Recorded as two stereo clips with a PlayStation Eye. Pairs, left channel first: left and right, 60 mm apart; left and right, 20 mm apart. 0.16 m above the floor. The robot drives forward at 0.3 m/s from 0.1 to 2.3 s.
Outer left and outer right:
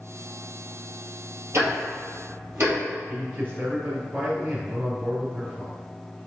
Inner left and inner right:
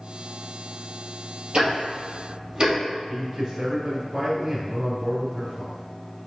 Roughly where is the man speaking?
Right.